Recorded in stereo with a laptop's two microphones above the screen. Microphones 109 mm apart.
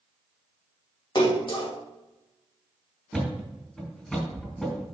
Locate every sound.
1.1 s a splash: 45° left (ahead or behind), 1.6 m
3.1 s a thud: 5° left (ahead or behind), 2.5 m